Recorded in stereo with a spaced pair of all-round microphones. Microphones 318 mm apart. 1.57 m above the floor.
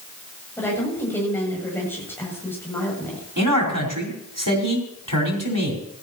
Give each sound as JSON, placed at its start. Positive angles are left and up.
{"t": 0.6, "sound": "a woman speaking", "side_deg": 5, "distance_m": 8.0}
{"t": 3.4, "sound": "a man speaking", "side_deg": -70, "distance_m": 5.0}